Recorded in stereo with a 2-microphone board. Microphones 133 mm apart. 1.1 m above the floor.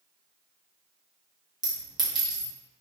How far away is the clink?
About 0.7 m.